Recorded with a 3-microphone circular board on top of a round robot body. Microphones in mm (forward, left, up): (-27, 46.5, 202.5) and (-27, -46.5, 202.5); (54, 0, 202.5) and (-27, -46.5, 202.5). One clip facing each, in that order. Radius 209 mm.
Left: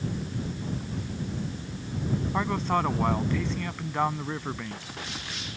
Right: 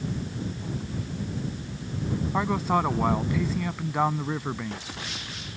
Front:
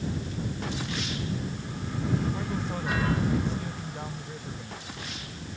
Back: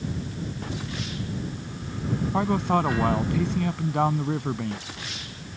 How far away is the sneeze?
I don't hear a sneeze.